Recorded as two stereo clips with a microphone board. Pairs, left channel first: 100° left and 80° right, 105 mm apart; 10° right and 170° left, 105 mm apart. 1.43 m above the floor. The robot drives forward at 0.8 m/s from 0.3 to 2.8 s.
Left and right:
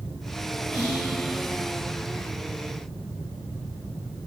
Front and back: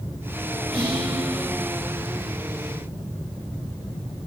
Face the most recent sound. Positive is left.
turn(degrees=-130)